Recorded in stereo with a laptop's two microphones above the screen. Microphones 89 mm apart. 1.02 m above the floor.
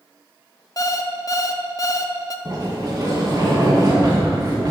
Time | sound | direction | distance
0.8 | an alarm clock | 40° left (ahead or behind) | 0.5 m
2.5 | a sliding door | 45° right (ahead or behind) | 3 m